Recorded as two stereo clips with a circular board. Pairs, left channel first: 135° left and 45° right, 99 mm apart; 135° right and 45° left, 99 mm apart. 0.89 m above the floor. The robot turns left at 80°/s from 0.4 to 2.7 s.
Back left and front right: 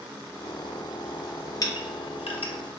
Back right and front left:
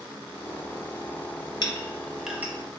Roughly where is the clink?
Behind.